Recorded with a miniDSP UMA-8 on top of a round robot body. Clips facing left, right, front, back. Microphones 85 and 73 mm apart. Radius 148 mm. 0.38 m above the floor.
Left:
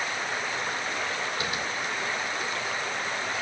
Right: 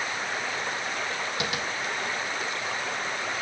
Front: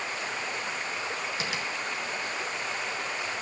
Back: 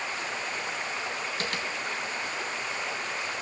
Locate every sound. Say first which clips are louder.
1.4 s tapping: right 1 dB, even; 80° right, 2.5 m